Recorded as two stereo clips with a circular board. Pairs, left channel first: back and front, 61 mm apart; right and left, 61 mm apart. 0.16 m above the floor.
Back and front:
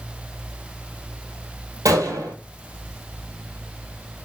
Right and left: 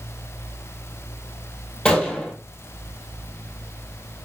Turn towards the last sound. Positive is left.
turn(degrees=-15)